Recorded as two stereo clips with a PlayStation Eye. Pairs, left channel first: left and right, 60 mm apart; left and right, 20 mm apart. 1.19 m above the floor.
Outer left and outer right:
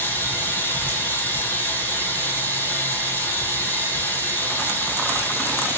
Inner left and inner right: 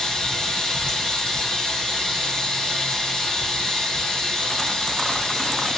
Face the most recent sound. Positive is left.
turn(degrees=30)  # may be behind; listen again after turning